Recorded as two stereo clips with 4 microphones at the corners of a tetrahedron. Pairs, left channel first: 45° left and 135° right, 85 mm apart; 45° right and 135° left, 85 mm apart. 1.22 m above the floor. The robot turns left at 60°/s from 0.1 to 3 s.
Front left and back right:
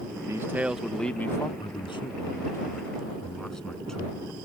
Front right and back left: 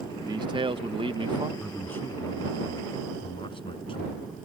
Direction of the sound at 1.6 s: 45° left.